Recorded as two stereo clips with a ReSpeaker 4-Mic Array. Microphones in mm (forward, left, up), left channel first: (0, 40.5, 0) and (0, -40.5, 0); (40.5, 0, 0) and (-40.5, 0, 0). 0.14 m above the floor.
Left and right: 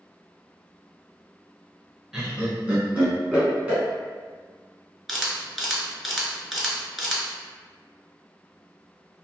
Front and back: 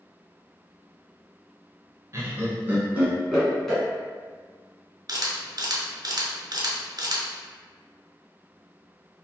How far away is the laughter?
About 1.3 m.